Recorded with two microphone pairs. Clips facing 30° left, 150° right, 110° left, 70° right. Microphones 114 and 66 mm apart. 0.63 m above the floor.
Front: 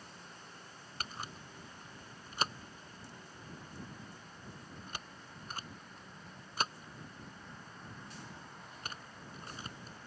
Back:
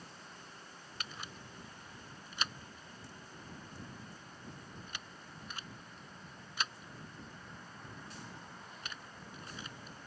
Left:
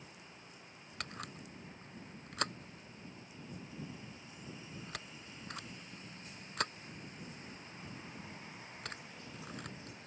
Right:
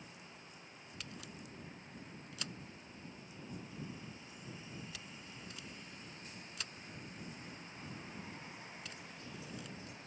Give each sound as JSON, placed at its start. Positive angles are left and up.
{"t": 1.0, "sound": "a camera shutter", "azimuth_deg": 80}